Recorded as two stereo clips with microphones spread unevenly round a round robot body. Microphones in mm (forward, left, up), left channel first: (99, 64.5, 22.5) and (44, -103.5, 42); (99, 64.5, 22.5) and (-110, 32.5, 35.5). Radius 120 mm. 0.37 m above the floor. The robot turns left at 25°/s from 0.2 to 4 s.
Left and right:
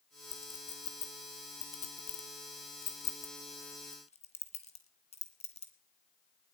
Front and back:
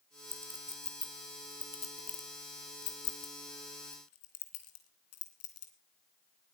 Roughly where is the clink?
Left.